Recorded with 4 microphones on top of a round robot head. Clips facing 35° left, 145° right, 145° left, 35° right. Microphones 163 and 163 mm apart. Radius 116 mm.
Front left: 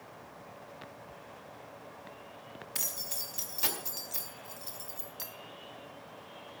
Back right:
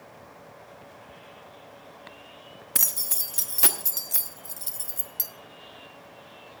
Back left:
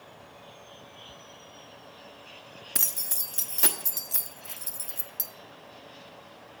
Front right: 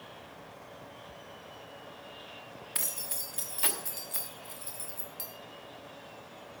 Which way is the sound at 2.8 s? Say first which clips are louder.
Back right 4 dB, back left 1 dB; 175° right.